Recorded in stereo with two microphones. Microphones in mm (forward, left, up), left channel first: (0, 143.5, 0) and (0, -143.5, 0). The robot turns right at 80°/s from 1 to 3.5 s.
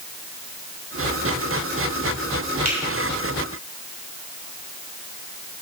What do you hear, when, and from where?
2.6 s a finger snap: 60° right (ahead or behind), 3 m; by 2.8 s 70° right (ahead or behind), 3 m